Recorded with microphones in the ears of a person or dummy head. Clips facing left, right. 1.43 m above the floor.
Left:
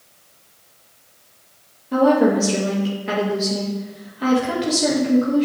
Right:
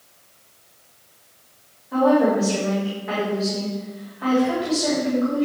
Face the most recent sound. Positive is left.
turn(degrees=35)  # may be behind; listen again after turning